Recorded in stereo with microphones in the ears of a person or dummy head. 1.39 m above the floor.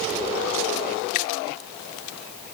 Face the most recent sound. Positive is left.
turn(degrees=50)  # may be behind; listen again after turning